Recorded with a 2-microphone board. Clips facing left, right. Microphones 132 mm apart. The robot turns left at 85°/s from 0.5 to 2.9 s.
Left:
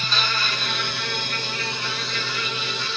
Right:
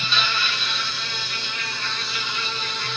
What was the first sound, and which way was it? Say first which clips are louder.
An insect: even; 130° left.